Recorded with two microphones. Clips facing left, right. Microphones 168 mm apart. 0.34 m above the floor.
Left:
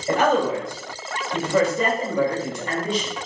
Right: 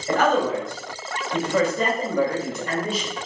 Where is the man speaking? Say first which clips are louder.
Left 1 dB; 20° left (ahead or behind), 1.3 m; by 3.1 s 10° right (ahead or behind), 1.8 m.